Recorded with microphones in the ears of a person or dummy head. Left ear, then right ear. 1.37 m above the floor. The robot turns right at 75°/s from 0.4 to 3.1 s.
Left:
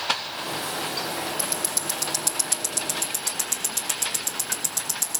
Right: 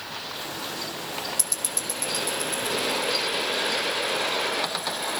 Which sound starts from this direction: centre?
Ticking, at 1.4 s.